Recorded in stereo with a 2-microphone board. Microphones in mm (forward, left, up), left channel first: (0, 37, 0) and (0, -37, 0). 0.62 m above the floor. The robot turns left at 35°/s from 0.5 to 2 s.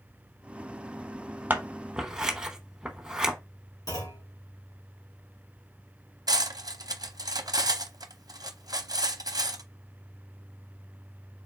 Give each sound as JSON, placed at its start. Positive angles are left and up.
{"t": 1.5, "sound": "scissors", "side_deg": -25, "distance_m": 0.8}
{"t": 3.9, "sound": "a clunk", "side_deg": 60, "distance_m": 3.0}
{"t": 6.3, "sound": "cutlery clinking", "side_deg": -60, "distance_m": 0.6}